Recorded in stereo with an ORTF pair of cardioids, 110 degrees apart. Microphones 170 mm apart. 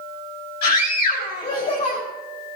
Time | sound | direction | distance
0.6 | a scream | 65° left | 3.5 m